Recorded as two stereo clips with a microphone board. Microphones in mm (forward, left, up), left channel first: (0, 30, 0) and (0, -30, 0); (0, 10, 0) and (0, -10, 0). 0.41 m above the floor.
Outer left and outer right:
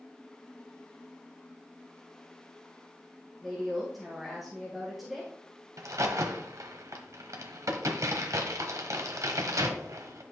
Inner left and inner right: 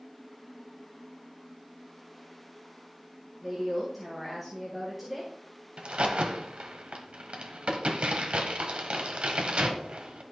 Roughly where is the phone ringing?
I don't hear a phone ringing.